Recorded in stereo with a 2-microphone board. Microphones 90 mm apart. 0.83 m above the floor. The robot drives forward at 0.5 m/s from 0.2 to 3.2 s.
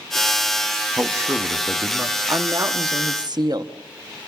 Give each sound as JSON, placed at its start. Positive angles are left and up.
{"t": 1.0, "sound": "a man speaking", "side_deg": -30, "distance_m": 1.0}
{"t": 2.3, "sound": "a woman speaking", "side_deg": -35, "distance_m": 1.1}